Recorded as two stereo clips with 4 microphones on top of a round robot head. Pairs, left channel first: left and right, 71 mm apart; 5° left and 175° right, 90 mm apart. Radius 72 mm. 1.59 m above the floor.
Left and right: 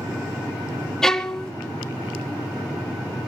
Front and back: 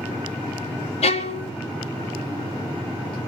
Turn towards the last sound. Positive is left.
turn(degrees=10)